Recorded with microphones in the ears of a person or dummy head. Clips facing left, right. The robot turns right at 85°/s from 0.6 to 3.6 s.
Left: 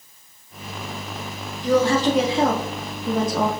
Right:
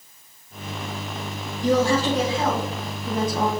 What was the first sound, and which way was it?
A woman speaking, 35° right.